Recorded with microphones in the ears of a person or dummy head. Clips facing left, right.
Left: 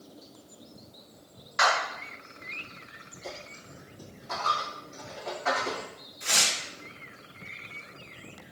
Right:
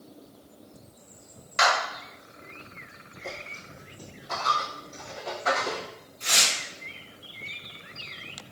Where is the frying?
No frying in this recording.